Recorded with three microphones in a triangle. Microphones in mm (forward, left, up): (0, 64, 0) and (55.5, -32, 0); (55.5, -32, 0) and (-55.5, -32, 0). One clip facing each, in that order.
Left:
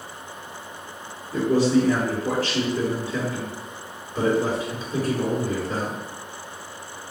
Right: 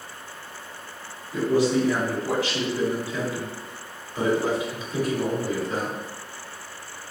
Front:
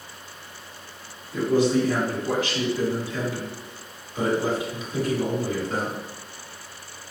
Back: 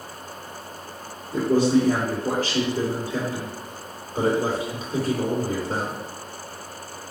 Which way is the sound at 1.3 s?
150° left.